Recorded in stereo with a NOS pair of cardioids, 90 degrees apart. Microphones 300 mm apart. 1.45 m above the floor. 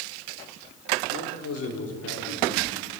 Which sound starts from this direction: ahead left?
A man speaking, at 1.1 s.